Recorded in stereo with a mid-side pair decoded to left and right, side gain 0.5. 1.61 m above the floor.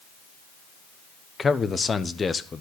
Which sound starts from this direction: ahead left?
A man speaking, at 1.4 s.